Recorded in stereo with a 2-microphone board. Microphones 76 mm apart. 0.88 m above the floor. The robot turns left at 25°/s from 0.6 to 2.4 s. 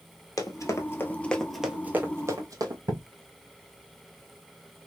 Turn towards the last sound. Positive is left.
turn(degrees=-60)  # may be behind; listen again after turning